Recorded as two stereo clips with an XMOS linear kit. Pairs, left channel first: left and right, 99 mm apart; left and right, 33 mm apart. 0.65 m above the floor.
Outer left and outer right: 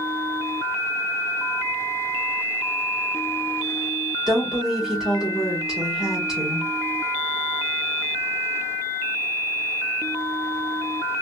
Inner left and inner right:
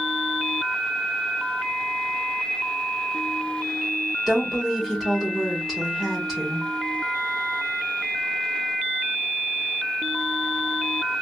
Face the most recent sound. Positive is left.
turn(degrees=-5)  # may be behind; listen again after turning